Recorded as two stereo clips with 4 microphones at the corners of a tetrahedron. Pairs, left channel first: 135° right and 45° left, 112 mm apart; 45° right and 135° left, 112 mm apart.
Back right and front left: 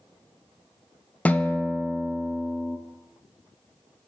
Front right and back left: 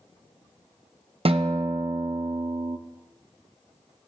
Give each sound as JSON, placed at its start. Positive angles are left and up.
{"t": 1.2, "sound": "a guitar", "azimuth_deg": 150, "distance_m": 0.5}